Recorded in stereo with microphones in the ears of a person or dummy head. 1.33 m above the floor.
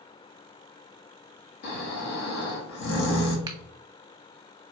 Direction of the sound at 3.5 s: 20° right (ahead or behind).